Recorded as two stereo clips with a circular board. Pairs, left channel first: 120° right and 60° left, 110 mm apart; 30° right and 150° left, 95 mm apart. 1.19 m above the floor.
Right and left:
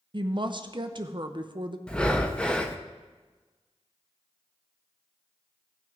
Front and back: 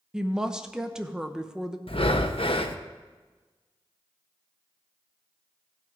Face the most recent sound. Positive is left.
turn(degrees=-40)